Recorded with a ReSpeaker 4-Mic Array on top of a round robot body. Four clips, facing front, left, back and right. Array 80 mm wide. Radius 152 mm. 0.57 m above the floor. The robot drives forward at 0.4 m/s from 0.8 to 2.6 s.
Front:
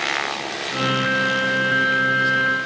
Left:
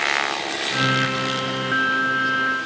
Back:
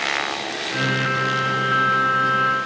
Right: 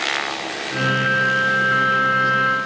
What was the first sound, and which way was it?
Only background noise.